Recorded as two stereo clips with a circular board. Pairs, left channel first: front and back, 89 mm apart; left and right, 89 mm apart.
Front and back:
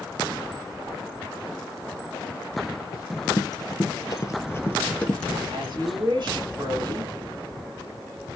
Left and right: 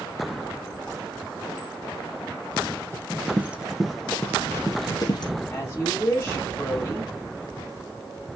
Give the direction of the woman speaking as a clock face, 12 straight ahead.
7 o'clock.